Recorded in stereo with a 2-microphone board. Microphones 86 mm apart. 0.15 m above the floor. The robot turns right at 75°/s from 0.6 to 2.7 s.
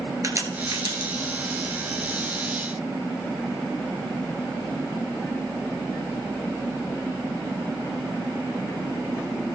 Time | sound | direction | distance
0.2 | a crack | 40° right (ahead or behind) | 2.5 m